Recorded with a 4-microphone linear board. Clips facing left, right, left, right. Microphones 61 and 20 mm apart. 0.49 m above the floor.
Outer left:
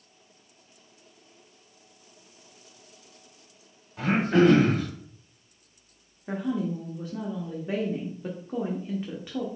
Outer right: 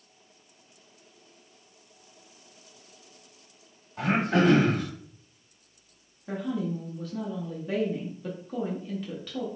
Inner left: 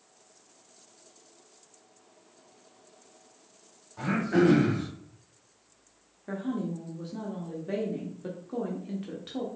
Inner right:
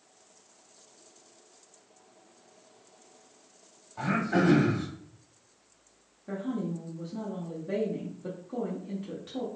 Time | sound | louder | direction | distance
4.0 | throat clearing | outer left 3 dB, inner left 2 dB | centre (ahead or behind) | 2 m
6.3 | a woman speaking | outer left 2 dB, inner left 1 dB | 20° left (ahead or behind) | 1.0 m